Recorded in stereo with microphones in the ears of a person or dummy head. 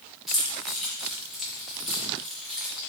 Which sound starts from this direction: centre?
Keys jangling, at 0.3 s.